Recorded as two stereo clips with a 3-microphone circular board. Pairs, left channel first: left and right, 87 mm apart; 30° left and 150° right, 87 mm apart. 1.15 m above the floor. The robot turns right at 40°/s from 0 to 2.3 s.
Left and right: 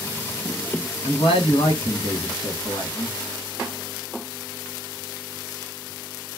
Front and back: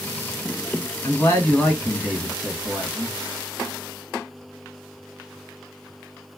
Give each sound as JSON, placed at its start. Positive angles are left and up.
{"t": 1.0, "sound": "a man speaking", "azimuth_deg": 80, "distance_m": 1.4}